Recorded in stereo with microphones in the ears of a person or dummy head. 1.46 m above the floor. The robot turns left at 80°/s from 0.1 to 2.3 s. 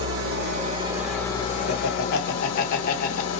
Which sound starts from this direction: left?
Laughter, at 1.7 s.